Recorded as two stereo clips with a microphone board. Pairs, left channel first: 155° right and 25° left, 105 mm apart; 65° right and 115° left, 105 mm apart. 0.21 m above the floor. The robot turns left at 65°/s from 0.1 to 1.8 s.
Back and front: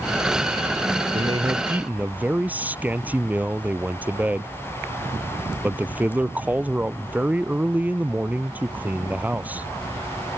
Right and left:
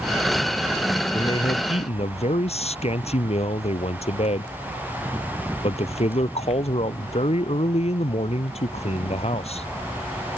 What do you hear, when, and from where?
1.1 s a man speaking: 10° right; by 9.7 s 55° right